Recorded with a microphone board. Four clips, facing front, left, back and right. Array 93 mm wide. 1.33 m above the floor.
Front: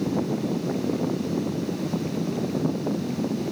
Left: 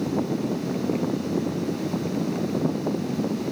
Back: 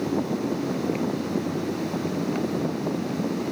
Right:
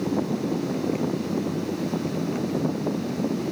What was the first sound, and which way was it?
Only background noise.